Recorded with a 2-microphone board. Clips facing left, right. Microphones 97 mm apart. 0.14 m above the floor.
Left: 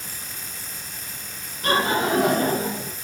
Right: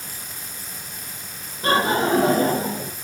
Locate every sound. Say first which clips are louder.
1.6 s laughter: right 2 dB; 25° right (ahead or behind), 5 m